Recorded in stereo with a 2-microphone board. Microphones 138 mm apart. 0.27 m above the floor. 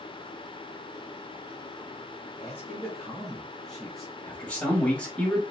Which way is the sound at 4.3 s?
10° left (ahead or behind).